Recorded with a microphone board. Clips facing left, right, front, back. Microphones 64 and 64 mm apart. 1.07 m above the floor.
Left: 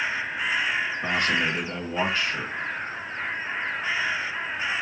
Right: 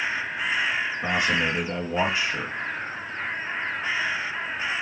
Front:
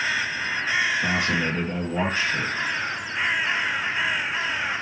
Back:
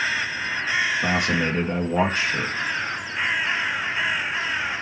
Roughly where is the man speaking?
Behind.